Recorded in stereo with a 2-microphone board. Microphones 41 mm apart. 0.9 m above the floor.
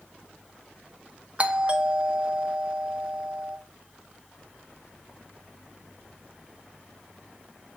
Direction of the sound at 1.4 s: 30° right (ahead or behind).